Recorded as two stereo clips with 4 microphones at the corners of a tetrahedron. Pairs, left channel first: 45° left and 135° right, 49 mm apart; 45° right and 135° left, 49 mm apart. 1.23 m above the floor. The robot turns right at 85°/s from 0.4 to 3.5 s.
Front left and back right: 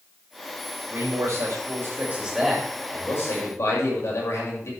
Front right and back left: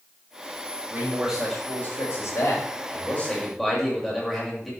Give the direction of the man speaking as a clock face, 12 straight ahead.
6 o'clock.